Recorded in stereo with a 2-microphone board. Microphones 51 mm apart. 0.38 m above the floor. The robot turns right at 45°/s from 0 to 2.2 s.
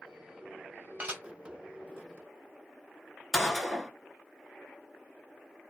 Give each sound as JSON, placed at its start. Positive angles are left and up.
{"t": 1.0, "sound": "dishes clattering", "side_deg": -30, "distance_m": 1.2}
{"t": 3.3, "sound": "a gunshot", "side_deg": 10, "distance_m": 1.0}